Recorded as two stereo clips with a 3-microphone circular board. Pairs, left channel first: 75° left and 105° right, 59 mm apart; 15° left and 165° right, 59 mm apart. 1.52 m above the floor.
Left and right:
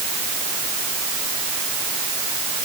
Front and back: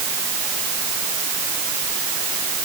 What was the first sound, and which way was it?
Only background noise.